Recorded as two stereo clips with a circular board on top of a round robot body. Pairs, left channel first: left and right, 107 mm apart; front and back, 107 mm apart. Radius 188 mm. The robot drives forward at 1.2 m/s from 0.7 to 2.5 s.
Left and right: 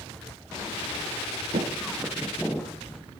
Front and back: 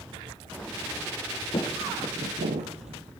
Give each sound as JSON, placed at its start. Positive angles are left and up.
{"t": 1.5, "sound": "footsteps", "azimuth_deg": -55, "distance_m": 0.9}